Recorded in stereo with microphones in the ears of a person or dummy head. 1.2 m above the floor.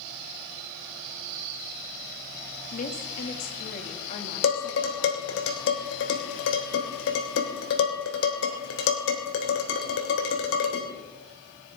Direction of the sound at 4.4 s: 75° left (ahead or behind).